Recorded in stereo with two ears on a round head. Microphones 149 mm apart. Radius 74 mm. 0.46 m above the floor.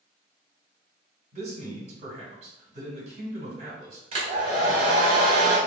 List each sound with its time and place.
1.3 s a man speaking: 45° right (ahead or behind), 1.7 m
4.1 s a hair dryer: 35° right (ahead or behind), 1.4 m